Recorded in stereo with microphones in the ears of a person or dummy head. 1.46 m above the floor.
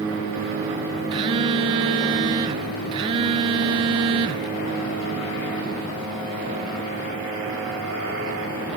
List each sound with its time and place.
1.1 s a phone buzzing: 30° right (ahead or behind), 0.9 m